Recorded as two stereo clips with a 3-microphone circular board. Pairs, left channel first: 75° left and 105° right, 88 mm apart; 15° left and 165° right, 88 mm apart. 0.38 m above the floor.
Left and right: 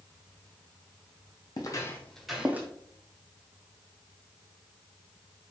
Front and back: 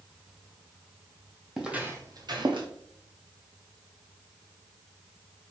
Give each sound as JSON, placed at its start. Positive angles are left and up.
{"t": 1.6, "sound": "footsteps", "azimuth_deg": 110, "distance_m": 0.8}